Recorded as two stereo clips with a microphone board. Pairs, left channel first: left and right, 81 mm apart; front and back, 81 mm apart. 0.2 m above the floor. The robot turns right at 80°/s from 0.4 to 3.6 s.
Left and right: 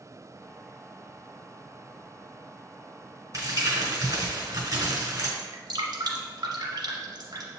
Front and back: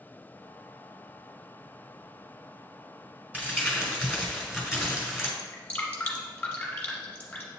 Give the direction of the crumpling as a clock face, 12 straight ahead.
4 o'clock.